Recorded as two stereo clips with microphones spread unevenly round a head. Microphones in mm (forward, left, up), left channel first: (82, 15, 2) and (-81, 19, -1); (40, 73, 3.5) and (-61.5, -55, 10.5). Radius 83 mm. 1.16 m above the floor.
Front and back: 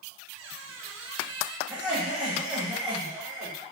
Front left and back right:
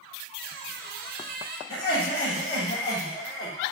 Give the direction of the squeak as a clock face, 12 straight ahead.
5 o'clock.